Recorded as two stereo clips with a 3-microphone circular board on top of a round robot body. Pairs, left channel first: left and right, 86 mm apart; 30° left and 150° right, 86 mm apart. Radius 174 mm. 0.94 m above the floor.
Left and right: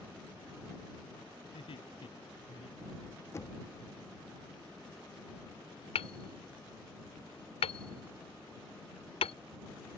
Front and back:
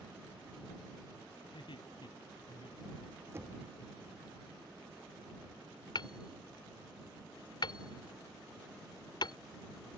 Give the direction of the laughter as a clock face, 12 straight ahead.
10 o'clock.